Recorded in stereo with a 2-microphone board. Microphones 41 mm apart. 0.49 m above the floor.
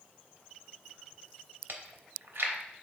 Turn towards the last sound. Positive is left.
turn(degrees=-75)  # may be behind; listen again after turning